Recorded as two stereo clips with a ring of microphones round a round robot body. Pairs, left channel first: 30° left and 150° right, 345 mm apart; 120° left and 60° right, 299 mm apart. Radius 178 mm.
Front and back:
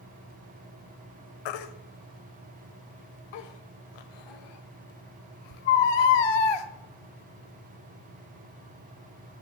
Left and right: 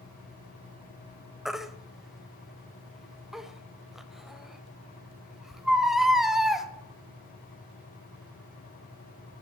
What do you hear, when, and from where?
1.4 s a baby crying: 30° left, 1.0 m